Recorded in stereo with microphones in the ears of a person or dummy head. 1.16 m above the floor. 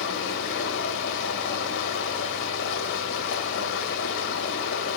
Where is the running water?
70° left (ahead or behind), 1.8 m.